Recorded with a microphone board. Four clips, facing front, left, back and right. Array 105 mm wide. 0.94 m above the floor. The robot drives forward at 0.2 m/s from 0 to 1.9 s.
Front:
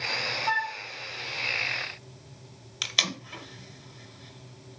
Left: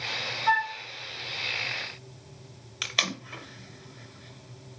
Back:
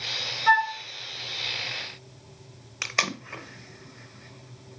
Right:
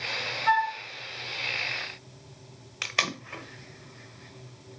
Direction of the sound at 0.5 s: 170° right.